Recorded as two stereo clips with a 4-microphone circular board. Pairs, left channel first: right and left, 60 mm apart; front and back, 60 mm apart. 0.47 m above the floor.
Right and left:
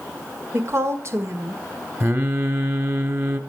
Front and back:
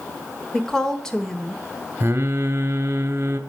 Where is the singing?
135° left, 1.5 m.